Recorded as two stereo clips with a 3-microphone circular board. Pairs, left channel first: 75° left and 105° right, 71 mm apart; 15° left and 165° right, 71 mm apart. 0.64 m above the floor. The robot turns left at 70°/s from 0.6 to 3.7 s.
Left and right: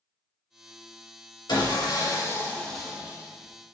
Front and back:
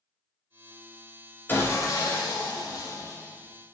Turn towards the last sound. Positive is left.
turn(degrees=-75)